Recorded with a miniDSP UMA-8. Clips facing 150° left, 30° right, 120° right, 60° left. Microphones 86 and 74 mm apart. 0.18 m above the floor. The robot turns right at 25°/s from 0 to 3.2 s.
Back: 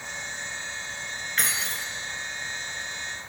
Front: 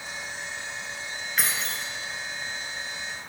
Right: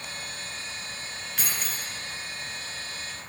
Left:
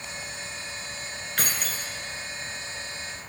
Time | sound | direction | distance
1.4 | keys jangling | 55° left | 1.5 m